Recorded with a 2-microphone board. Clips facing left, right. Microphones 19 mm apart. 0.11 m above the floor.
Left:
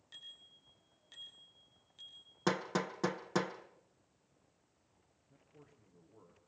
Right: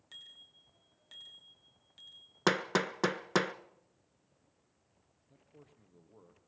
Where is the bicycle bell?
75° right (ahead or behind), 6.5 m; by 2.3 s 65° right (ahead or behind), 7.5 m.